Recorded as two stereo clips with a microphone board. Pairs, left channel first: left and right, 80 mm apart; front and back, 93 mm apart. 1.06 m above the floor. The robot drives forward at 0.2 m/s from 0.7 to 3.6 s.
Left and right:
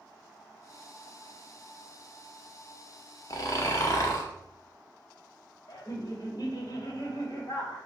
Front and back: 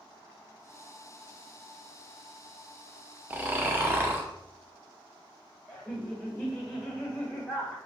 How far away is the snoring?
About 0.6 m.